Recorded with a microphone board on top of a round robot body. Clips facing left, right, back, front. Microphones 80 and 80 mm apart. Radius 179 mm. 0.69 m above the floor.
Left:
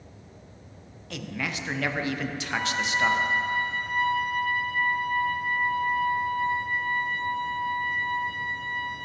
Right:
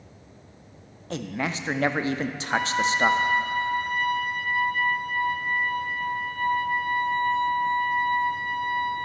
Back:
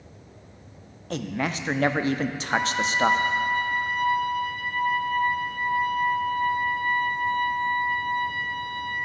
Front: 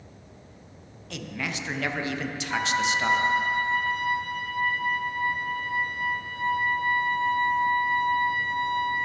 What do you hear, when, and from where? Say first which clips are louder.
1.1 s a man speaking: right 4 dB, back 6 dB; 140° right, 0.6 m
2.5 s a trumpet: right 5 dB, even; 60° right, 1.2 m